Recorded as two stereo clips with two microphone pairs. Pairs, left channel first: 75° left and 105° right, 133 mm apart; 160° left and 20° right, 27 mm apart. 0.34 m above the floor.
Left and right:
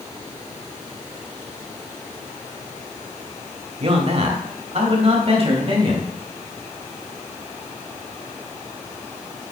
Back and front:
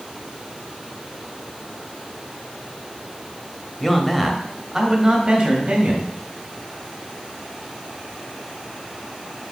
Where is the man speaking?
125° right, 1.2 m; by 6.1 s 55° right, 1.8 m.